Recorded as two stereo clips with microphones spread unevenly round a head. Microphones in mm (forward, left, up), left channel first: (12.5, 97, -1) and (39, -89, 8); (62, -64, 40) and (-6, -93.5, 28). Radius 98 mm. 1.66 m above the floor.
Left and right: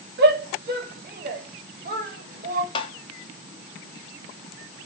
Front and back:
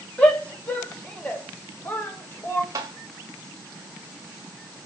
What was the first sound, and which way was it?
A shout, 45° right.